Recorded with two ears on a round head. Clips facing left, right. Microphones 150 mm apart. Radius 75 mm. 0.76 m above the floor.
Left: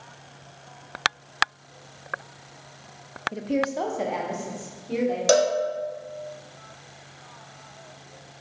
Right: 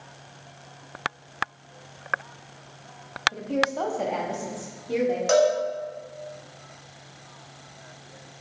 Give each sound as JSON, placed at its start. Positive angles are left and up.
{"t": 3.3, "sound": "a woman speaking", "side_deg": 30, "distance_m": 0.6}
{"t": 5.3, "sound": "a cowbell", "side_deg": 40, "distance_m": 0.8}